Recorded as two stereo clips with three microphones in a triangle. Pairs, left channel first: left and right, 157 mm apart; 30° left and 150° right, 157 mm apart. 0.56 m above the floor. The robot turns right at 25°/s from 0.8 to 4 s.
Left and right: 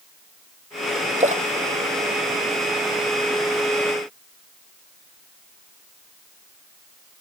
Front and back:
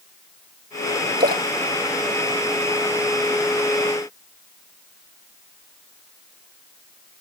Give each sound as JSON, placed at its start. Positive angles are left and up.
{"t": 1.2, "sound": "a splash", "azimuth_deg": -130}